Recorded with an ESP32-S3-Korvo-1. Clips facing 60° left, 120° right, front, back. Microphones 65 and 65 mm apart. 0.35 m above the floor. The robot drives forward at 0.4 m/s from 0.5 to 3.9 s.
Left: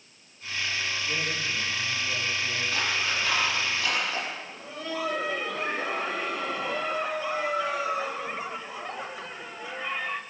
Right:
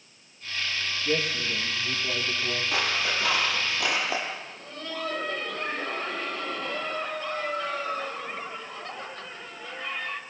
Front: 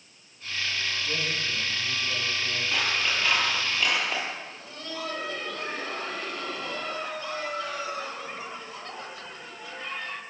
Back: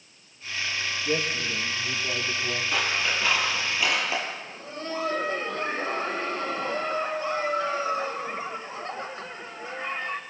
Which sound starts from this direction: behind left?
Laughter, at 4.4 s.